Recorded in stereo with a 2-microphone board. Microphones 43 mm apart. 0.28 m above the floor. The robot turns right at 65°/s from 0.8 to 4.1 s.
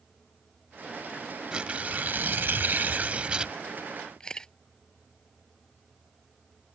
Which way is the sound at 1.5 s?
155° right.